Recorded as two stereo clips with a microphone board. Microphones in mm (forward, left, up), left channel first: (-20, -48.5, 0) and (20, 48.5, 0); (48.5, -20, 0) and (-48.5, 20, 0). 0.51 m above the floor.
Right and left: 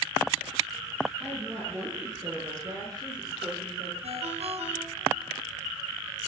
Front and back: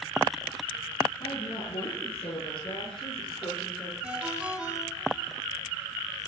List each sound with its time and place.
1.2 s a woman speaking: 5° left, 9.5 m; by 3.9 s 25° left, 9.5 m
4.0 s a ringtone: 75° left, 3 m